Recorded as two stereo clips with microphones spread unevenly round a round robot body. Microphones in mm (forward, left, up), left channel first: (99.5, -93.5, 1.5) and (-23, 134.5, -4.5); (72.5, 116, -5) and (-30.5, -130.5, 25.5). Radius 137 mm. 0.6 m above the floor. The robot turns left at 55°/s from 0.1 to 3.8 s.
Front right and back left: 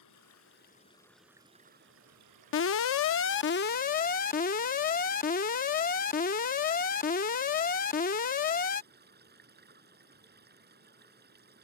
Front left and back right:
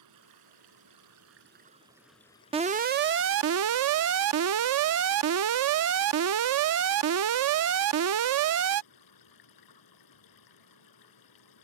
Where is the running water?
90° right; by 11.7 s 65° left.